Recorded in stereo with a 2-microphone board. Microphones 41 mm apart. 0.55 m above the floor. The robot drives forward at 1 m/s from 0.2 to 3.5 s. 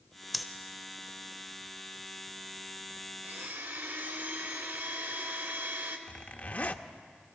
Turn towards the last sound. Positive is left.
turn(degrees=45)  # may be behind; listen again after turning